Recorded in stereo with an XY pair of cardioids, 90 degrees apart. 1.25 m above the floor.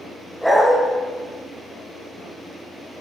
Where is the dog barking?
5° left, 2.5 m.